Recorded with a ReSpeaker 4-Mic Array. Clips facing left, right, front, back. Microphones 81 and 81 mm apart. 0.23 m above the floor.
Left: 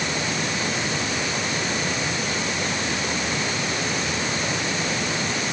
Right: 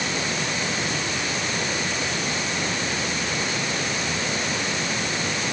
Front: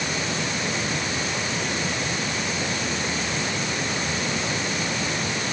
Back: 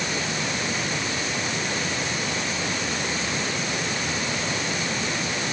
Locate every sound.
Only background noise.